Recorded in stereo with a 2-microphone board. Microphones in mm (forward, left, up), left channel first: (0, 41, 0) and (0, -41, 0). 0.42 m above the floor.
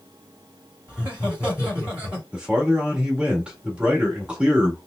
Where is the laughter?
20° right (ahead or behind), 1.6 m.